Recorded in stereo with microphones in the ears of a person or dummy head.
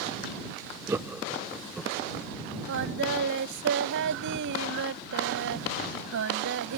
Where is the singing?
70° right (ahead or behind).